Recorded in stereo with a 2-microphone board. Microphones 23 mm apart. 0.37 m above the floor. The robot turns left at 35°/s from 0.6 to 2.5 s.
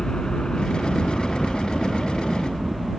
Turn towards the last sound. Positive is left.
turn(degrees=-20)